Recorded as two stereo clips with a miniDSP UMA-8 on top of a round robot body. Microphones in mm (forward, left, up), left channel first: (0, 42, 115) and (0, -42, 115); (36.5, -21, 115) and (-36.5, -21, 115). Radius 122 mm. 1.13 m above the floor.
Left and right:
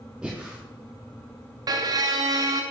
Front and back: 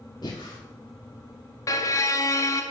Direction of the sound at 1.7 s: 45° right.